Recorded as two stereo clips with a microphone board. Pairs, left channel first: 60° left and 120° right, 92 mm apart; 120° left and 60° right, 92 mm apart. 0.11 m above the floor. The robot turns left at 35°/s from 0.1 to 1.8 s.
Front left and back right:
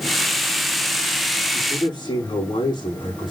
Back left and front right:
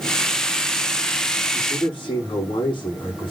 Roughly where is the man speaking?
Left.